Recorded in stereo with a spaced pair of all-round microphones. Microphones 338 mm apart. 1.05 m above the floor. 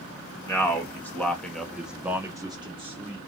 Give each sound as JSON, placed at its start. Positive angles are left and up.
{"t": 0.5, "sound": "a man speaking", "side_deg": 10, "distance_m": 1.1}